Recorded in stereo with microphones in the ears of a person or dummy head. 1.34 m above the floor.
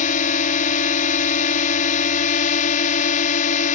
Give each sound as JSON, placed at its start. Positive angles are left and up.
{"t": 0.0, "sound": "a drone", "side_deg": 40}